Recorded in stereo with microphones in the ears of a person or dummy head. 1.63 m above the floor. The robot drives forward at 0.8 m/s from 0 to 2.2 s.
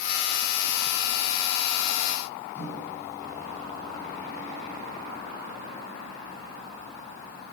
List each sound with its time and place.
2.5 s a microwave: 20° left (ahead or behind), 8 m